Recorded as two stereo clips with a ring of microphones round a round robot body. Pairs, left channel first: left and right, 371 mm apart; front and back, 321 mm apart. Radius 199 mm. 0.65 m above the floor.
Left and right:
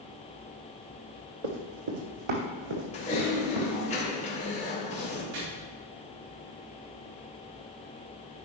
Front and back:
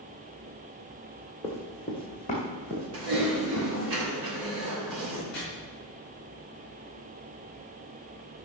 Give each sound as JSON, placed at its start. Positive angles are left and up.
{"t": 1.4, "sound": "running footsteps", "azimuth_deg": -85, "distance_m": 1.7}
{"t": 2.9, "sound": "typing on a keyboard", "azimuth_deg": 160, "distance_m": 3.5}
{"t": 5.3, "sound": "chopping", "azimuth_deg": -90, "distance_m": 4.5}